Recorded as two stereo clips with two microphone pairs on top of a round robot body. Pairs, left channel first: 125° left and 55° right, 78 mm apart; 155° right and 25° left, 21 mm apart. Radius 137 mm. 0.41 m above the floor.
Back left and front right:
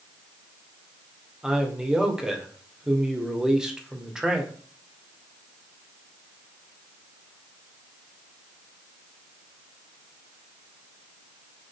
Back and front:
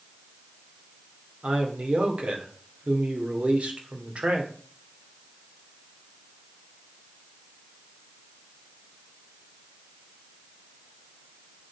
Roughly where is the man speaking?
Ahead.